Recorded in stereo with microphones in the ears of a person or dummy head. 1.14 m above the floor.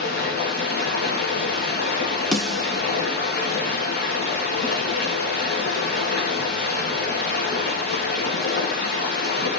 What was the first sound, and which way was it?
Running water, 40° left (ahead or behind).